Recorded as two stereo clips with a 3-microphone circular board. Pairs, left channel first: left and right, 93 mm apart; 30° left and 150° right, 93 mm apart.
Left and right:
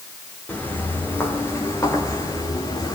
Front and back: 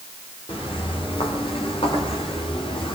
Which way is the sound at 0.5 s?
20° left.